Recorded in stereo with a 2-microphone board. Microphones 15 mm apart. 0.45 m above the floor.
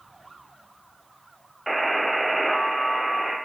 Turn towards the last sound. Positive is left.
turn(degrees=-5)  # may be behind; listen again after turning